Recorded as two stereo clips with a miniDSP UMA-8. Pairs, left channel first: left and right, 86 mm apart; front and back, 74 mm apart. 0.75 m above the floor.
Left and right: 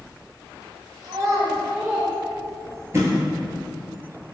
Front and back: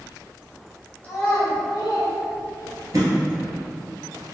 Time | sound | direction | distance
1.0 | a child speaking | 70° right | 1.0 m
2.9 | a thud | 145° right | 1.5 m